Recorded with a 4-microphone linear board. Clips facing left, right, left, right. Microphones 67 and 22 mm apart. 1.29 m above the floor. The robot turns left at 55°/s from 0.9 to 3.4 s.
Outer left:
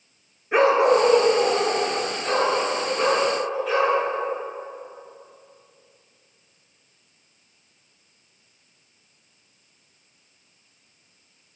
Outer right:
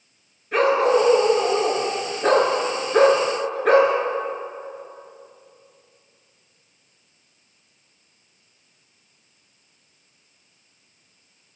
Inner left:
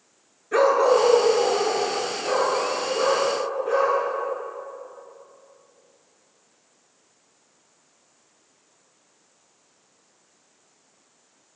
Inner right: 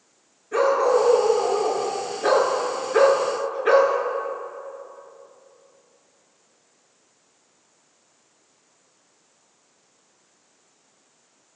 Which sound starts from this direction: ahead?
A dog barking, at 0.5 s.